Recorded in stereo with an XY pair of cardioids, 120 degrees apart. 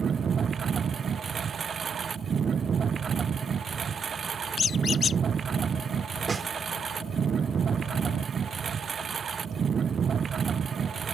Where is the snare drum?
25° right.